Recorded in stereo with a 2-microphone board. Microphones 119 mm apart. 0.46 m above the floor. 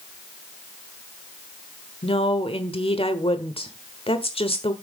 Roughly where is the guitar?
I don't hear a guitar.